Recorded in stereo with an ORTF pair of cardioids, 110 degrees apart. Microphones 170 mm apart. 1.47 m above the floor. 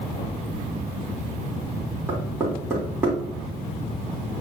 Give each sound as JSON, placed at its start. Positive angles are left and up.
{"t": 2.1, "sound": "knocking", "azimuth_deg": -15, "distance_m": 3.5}